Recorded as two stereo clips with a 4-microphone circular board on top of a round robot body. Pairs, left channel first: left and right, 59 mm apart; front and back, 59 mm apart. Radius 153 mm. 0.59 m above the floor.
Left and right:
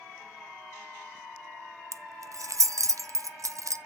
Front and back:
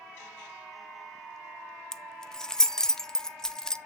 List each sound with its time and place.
1.9 s keys jangling: 80° right, 0.7 m